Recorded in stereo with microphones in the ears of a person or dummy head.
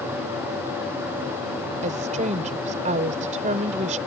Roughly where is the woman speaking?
Right.